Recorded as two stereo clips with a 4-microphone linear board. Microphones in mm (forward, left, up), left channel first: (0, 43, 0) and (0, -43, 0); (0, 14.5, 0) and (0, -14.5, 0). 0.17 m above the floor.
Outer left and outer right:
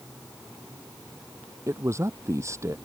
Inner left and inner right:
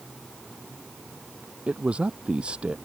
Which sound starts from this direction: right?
A man speaking, at 1.7 s.